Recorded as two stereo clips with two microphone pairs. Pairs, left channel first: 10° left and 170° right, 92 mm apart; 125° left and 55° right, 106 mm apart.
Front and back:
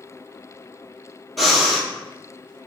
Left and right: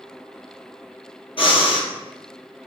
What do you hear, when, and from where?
1.4 s breathing: 105° left, 0.7 m